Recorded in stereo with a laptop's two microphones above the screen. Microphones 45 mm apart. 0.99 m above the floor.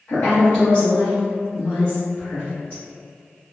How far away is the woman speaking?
About 1.1 m.